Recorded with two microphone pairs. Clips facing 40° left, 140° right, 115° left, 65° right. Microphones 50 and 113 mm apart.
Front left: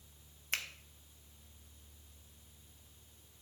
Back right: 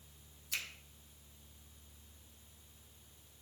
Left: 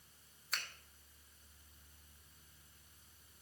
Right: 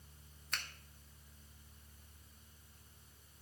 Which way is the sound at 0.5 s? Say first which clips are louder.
Front left 3 dB, even; 25° left.